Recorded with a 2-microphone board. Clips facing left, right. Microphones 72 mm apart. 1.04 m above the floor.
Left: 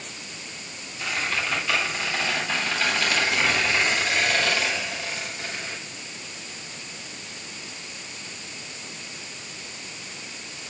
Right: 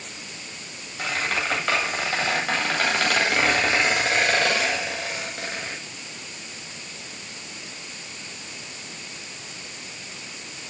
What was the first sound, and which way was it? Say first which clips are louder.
A squeak: right 2 dB; 70° right (ahead or behind).